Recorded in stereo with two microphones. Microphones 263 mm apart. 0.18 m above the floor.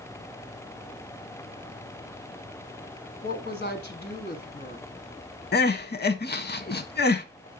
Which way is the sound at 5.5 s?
40° left (ahead or behind).